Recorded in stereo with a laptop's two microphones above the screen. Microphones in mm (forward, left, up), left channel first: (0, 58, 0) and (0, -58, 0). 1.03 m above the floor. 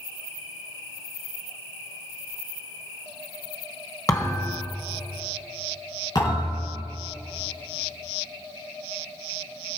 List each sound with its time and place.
4.1 s a thud: 30° left (ahead or behind), 1.8 m
6.2 s a thud: 40° left (ahead or behind), 4.5 m